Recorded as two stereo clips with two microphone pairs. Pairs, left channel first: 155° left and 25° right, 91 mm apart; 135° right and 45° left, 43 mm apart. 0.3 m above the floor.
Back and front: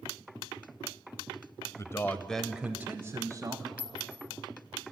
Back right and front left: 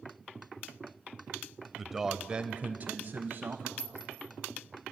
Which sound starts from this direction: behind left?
A man speaking, at 1.8 s.